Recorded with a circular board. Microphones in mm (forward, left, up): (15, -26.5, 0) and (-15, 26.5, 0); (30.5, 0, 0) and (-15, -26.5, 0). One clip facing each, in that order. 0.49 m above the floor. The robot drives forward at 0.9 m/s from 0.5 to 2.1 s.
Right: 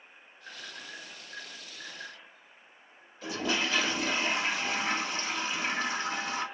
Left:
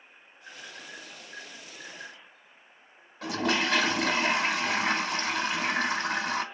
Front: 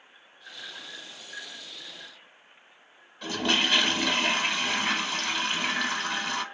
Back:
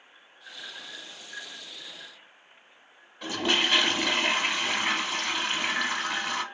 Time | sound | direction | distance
3.2 | a toilet flushing | 135° left | 0.6 m